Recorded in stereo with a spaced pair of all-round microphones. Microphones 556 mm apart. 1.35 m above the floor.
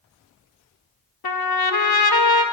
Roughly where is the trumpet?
Left.